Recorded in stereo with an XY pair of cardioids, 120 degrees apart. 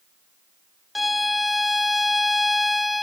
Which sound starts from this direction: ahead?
A violin, at 0.9 s.